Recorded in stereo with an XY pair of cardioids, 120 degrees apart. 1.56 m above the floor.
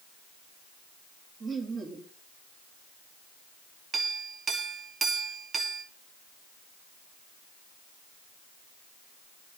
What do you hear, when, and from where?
1.4 s laughter: 35° right, 2.5 m
3.9 s a clink: 40° right, 1.6 m